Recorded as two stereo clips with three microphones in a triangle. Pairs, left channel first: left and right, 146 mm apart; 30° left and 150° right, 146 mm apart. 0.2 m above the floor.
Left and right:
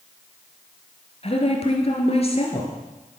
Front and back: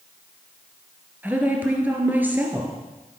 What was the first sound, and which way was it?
A woman speaking, 130° left.